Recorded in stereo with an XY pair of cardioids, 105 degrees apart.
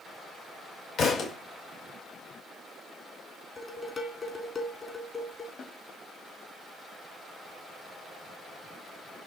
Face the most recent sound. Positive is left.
turn(degrees=50)